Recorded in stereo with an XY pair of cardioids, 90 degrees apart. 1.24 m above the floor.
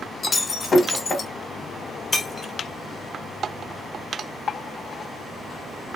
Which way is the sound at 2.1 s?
30° left.